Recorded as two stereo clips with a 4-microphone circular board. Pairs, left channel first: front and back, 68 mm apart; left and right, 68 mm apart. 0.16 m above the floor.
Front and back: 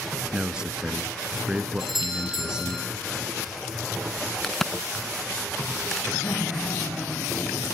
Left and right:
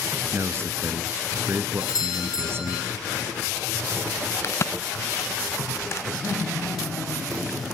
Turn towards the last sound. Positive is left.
turn(degrees=25)